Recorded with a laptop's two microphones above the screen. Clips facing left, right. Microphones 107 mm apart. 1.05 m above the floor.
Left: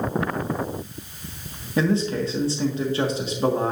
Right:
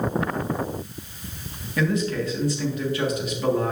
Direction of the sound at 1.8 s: 30° left (ahead or behind).